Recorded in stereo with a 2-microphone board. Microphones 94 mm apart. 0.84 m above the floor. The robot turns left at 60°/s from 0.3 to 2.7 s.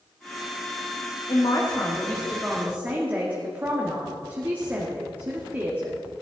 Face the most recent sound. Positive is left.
turn(degrees=-20)